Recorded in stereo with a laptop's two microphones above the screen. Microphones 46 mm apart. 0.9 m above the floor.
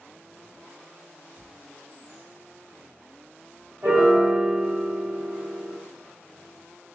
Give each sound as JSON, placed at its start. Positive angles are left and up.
{"t": 1.4, "sound": "tearing paper", "side_deg": -15, "distance_m": 0.5}
{"t": 3.8, "sound": "a piano", "side_deg": -55, "distance_m": 1.6}